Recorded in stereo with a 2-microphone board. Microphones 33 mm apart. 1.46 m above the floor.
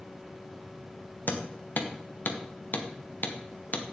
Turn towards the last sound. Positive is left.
turn(degrees=65)  # may be behind; listen again after turning